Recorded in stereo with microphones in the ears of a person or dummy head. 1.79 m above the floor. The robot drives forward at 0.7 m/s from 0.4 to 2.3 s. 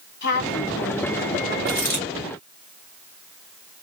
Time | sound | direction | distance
0.2 | a woman speaking | 50° left (ahead or behind) | 1.9 m
1.7 | a dropped coin | 10° left (ahead or behind) | 2 m